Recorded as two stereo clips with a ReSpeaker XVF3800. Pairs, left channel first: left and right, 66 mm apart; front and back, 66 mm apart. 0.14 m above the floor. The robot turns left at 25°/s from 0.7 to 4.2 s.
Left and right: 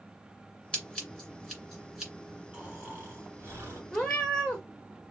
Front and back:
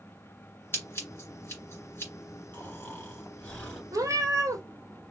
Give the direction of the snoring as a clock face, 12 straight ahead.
1 o'clock.